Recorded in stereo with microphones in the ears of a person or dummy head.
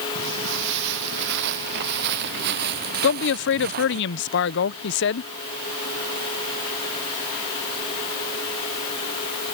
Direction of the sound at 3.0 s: 55° left (ahead or behind).